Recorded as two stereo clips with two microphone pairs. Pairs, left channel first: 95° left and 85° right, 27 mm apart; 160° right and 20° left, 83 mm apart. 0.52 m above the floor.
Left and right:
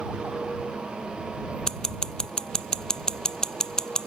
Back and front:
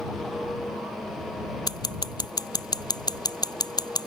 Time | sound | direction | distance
1.7 | scissors | 160° left | ?